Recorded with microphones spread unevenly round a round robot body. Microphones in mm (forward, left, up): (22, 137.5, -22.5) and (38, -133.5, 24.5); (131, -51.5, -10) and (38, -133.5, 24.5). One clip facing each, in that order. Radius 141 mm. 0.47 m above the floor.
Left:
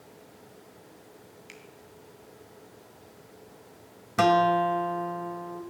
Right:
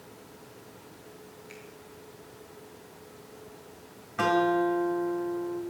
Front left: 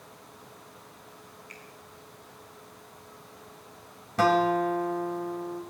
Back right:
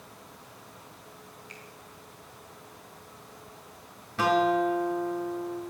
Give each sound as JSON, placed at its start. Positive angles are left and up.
{"t": 1.5, "sound": "a finger snap", "azimuth_deg": 135, "distance_m": 2.5}
{"t": 4.2, "sound": "a guitar", "azimuth_deg": 90, "distance_m": 1.9}